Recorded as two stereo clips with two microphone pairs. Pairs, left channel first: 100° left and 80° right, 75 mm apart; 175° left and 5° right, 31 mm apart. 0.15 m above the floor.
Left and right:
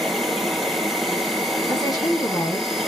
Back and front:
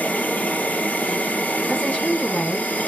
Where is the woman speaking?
125° left, 3.5 m.